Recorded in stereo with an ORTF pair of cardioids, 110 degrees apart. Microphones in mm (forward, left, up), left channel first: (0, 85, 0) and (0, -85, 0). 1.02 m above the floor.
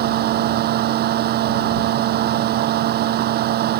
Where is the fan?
70° right.